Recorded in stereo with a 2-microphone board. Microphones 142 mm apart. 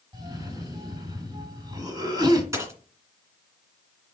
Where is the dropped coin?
20° right (ahead or behind), 2.0 m.